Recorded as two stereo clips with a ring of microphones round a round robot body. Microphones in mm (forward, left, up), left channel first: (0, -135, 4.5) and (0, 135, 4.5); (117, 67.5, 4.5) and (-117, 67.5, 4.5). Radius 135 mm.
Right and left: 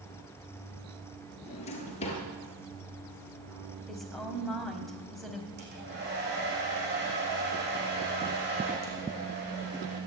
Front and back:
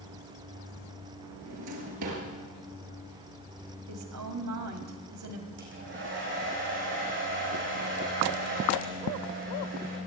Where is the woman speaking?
Straight behind, 3.5 m.